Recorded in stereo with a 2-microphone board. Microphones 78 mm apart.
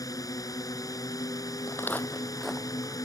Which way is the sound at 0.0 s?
50° left (ahead or behind).